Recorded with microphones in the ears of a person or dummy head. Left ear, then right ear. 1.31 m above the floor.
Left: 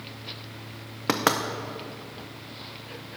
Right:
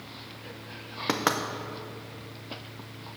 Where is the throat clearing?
I don't hear throat clearing.